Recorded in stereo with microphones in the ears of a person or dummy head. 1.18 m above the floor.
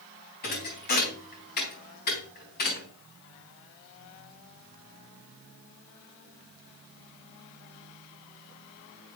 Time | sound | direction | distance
0.4 | a thud | 50° left (ahead or behind) | 3.5 m